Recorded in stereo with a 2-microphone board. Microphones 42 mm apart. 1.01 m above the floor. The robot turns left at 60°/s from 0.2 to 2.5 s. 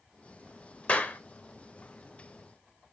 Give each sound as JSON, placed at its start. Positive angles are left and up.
{"t": 0.9, "sound": "a clap", "side_deg": 35, "distance_m": 0.6}